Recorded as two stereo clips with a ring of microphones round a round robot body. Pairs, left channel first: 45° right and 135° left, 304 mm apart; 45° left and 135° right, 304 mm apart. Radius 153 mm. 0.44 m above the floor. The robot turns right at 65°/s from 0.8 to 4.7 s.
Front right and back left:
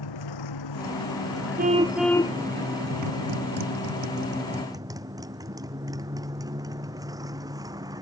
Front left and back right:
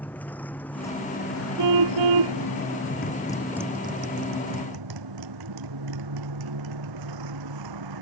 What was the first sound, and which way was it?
A motorcycle, 40° right.